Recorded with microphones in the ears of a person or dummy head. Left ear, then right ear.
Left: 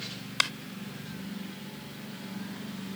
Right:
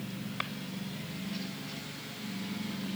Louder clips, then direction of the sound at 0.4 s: Left 10 dB; 80° left.